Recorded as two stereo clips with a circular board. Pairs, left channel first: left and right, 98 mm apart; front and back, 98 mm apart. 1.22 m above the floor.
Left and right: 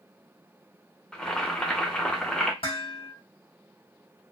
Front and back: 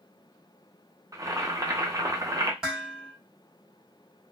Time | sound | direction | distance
1.1 | boiling | 165° left | 0.6 m
2.6 | dishes clattering | 95° left | 1.3 m